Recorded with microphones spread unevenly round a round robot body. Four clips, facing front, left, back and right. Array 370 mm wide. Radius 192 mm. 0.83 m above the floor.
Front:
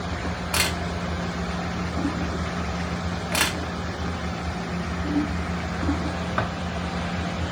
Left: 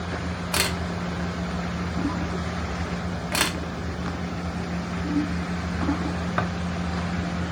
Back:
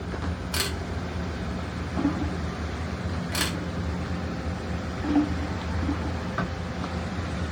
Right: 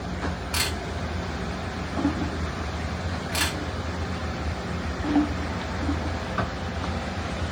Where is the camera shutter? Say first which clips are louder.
Left 3 dB, front 5 dB; 65° left, 1.2 m.